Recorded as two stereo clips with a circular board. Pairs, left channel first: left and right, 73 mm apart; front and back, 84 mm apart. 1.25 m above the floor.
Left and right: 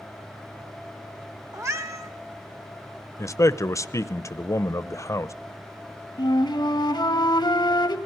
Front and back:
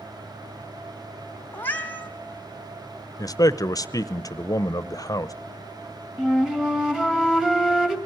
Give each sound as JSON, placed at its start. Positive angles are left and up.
{"t": 1.5, "sound": "a cat meowing", "azimuth_deg": -60, "distance_m": 1.6}
{"t": 3.2, "sound": "a man speaking", "azimuth_deg": 45, "distance_m": 0.7}
{"t": 6.2, "sound": "a flute", "azimuth_deg": 95, "distance_m": 1.7}